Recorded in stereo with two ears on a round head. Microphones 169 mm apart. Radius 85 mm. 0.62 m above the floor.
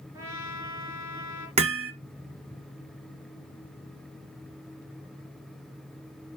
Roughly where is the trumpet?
Centre.